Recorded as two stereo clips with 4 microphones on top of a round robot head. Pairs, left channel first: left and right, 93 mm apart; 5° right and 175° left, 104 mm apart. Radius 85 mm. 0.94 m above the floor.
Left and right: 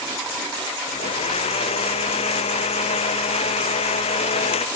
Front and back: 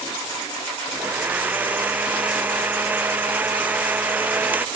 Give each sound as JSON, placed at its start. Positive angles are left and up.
{"t": 0.9, "sound": "a blender", "azimuth_deg": 100}